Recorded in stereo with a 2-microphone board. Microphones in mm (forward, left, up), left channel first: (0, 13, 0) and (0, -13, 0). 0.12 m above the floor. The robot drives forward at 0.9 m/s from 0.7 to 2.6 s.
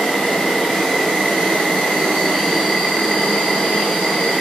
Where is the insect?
50° left (ahead or behind), 1.7 m; by 4.4 s 55° left (ahead or behind), 1.6 m.